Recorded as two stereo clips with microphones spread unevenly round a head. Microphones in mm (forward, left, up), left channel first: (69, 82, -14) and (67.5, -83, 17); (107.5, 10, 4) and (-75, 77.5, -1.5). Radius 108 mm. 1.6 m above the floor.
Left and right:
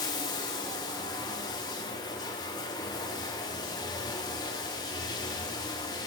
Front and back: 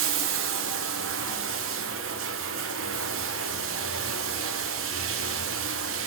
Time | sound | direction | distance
0.0 | running water | 165° left | 0.9 m